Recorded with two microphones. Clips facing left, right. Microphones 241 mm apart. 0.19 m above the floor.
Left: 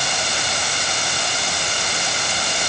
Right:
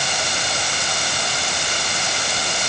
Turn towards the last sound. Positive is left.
No sound to turn to.